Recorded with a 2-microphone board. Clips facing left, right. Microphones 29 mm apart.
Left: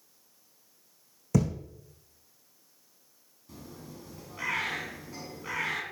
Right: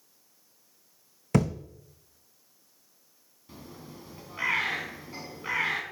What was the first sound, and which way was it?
A thud, 55° right (ahead or behind).